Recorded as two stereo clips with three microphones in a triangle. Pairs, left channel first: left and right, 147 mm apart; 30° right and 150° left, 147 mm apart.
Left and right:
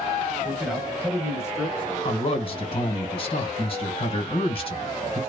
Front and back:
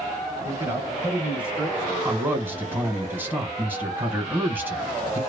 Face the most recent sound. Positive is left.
turn(degrees=80)